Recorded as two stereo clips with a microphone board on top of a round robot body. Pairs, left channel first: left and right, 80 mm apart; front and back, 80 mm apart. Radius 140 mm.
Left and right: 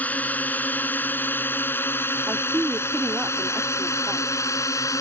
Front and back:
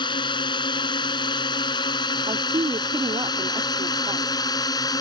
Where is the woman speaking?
160° right.